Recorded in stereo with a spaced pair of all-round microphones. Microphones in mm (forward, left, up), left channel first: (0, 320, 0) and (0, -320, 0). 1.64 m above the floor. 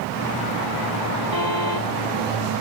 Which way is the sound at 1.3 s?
30° left (ahead or behind).